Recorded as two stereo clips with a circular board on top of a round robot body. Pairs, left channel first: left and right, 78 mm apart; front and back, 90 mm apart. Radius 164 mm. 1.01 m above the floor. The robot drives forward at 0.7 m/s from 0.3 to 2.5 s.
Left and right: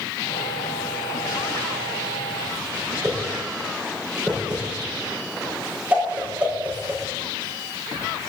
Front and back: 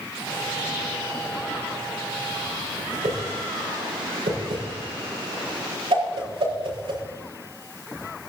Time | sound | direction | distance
3.0 | a whoosh | 165° right | 7 m